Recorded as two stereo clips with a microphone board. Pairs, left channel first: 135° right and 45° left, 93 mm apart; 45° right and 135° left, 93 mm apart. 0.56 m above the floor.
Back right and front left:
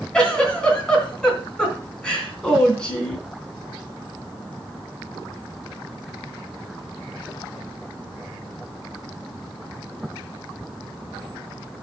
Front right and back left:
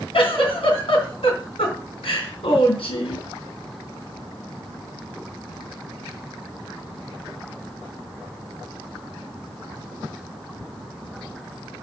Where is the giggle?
55° right, 3 m.